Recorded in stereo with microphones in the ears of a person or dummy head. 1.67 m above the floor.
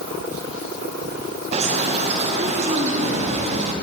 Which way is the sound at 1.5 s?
40° right (ahead or behind).